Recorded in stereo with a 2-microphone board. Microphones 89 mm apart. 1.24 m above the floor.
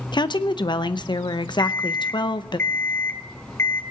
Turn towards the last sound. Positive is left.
turn(degrees=25)  # may be behind; listen again after turning